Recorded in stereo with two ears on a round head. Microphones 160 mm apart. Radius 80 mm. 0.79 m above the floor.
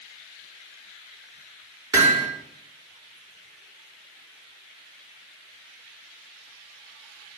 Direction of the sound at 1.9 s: 20° right (ahead or behind).